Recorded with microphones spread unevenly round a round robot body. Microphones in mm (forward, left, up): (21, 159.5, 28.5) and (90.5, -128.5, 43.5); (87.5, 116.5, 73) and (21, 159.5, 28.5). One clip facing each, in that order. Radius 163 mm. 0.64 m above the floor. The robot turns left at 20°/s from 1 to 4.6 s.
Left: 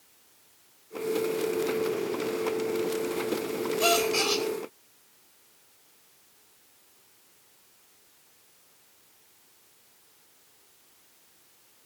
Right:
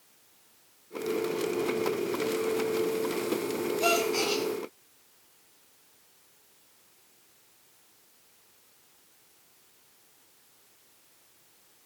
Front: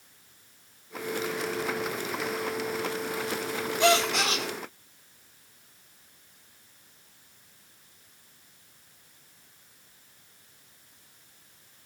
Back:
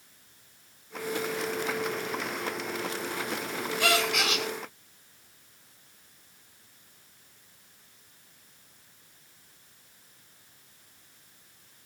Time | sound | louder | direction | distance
3.8 | a gasp | left 2 dB, front 4 dB | 40° left | 2 m